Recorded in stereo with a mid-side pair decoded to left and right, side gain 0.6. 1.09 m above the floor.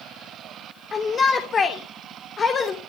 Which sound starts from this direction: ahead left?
A shout, at 0.9 s.